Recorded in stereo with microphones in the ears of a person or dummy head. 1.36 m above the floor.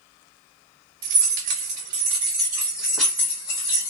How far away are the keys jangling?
About 1.4 m.